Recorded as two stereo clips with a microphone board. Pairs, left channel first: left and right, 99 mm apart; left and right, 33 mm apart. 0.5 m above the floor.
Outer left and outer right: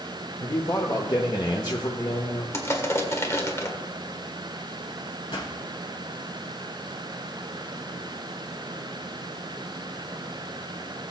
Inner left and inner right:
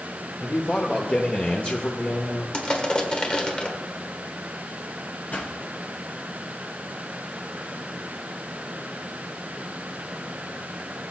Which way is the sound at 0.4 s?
45° left (ahead or behind).